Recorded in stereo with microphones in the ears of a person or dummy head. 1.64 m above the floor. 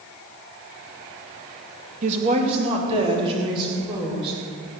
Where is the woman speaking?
40° right (ahead or behind), 1.9 m; by 4.4 s 25° right (ahead or behind), 5.5 m.